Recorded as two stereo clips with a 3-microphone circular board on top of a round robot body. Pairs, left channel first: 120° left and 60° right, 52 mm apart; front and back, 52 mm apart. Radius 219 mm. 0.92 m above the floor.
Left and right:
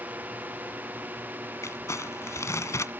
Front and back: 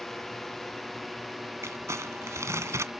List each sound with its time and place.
0.0 s a drone: 80° right; by 3.0 s 95° right
1.6 s crumpling: 150° left